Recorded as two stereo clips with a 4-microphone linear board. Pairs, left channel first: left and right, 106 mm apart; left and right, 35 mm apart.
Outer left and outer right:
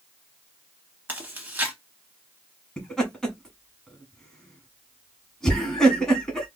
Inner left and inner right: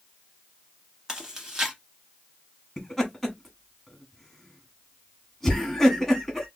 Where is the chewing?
20° right (ahead or behind), 1.0 m.